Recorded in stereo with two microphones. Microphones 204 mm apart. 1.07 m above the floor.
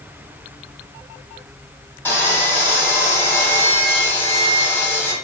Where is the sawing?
10° left (ahead or behind), 1.3 m.